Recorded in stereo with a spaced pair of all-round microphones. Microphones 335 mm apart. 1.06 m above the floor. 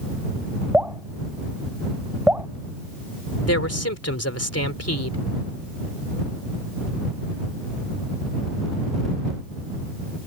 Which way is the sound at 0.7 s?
5° right (ahead or behind).